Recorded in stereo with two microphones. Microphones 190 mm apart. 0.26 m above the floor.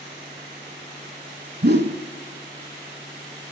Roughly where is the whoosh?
Right.